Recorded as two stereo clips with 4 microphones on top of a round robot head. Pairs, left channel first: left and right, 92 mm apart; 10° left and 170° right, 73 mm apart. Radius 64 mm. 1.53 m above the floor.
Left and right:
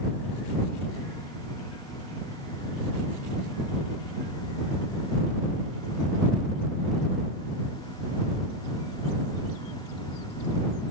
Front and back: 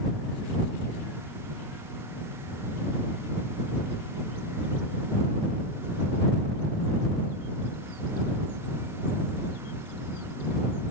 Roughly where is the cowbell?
I don't hear a cowbell.